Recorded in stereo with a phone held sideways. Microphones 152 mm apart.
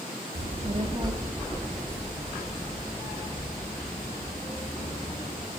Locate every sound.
0.3 s a child speaking: 70° right (ahead or behind), 0.7 m; by 5.5 s 30° left (ahead or behind), 4 m